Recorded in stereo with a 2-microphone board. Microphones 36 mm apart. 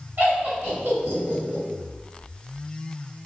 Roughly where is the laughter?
Right.